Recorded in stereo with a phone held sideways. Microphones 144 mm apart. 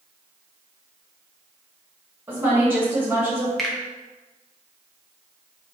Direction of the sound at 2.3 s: 15° right (ahead or behind).